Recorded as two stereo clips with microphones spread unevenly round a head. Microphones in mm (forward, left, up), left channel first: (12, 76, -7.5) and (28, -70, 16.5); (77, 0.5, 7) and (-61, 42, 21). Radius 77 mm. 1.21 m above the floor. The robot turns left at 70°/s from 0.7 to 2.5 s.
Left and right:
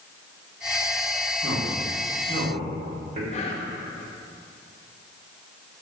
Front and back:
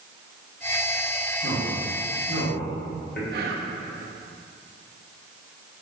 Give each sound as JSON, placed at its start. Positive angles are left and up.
{"t": 1.4, "sound": "a man speaking", "azimuth_deg": 25, "distance_m": 3.0}
{"t": 3.3, "sound": "whispering", "azimuth_deg": 145, "distance_m": 1.5}